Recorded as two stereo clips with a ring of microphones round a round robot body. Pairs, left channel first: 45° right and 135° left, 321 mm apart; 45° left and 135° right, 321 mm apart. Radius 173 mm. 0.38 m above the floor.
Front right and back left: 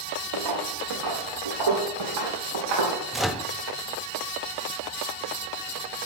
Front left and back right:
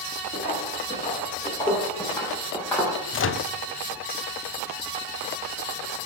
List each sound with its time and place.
0.3 s footsteps: 110° left, 4.5 m; by 3.0 s 135° left, 4.5 m
3.1 s a microwave: 45° left, 0.7 m